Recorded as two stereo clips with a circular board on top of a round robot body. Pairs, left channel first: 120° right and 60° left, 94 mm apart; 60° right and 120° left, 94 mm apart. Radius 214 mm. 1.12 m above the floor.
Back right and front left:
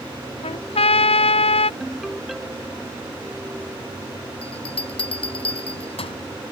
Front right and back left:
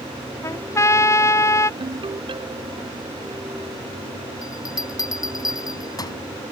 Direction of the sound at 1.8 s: 150° left.